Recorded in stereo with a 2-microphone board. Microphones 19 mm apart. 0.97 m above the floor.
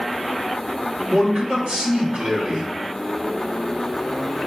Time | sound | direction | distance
1.1 | a man speaking | 60° right (ahead or behind) | 1.8 m